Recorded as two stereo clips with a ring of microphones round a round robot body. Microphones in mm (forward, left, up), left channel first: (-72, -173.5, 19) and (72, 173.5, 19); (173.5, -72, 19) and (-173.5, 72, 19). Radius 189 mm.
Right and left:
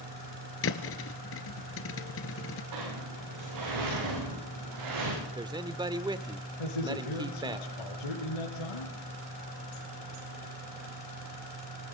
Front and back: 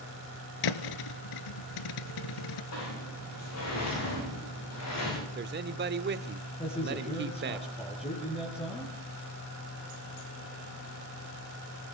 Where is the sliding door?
30° left, 10 m.